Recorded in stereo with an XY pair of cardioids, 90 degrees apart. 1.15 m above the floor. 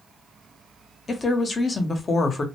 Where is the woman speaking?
40° left, 0.9 m.